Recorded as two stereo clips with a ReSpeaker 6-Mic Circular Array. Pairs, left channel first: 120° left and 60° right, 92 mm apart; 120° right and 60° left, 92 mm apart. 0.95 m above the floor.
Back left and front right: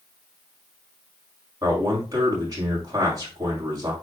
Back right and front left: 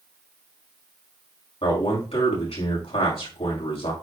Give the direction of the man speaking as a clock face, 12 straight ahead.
4 o'clock.